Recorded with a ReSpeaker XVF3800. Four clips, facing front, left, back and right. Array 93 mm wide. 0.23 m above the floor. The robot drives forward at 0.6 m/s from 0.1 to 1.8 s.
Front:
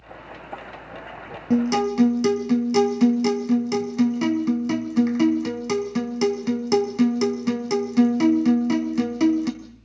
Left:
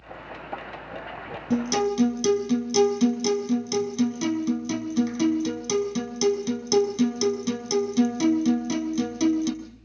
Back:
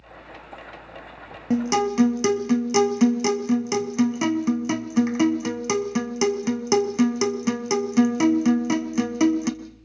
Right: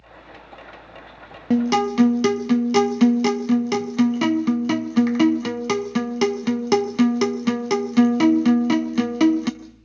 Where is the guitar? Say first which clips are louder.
Right 5 dB, front 1 dB; 95° right, 1.4 m; by 9.5 s 105° right, 1.5 m.